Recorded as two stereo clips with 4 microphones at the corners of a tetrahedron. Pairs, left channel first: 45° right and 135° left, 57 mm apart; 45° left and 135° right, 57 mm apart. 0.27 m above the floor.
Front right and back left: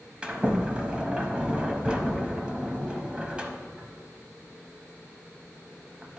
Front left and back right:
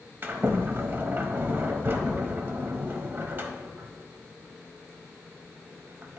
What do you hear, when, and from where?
0.2 s a sliding door: 165° right, 0.7 m